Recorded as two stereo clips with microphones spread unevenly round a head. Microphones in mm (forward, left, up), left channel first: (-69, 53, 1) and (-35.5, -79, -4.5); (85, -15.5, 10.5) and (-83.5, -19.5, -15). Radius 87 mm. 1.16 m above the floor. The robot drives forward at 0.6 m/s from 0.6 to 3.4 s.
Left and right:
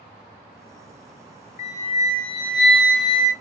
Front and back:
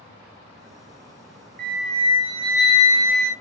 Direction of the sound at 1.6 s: 135° left.